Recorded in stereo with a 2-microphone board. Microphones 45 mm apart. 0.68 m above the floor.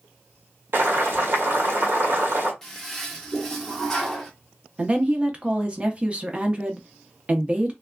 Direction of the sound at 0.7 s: 50° right (ahead or behind).